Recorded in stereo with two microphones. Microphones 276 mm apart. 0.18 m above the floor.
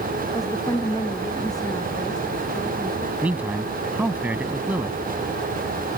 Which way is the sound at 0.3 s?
15° left (ahead or behind).